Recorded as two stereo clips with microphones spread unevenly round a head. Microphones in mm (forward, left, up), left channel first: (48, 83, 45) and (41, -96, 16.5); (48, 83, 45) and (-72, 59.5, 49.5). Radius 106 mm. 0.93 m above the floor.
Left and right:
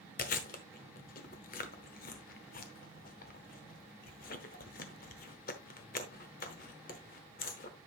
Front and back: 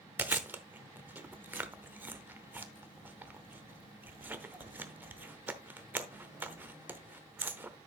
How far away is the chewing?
About 0.9 m.